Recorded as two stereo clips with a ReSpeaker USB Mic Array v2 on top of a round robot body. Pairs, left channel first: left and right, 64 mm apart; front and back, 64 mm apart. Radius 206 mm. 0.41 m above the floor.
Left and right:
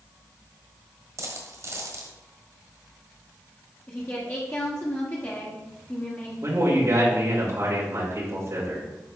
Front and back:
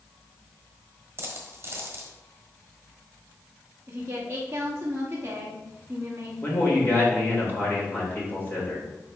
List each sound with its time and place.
1.2 s a dropped coin: 130° right, 1.3 m
3.9 s a woman speaking: 130° left, 1.5 m
6.4 s a man speaking: 55° right, 3 m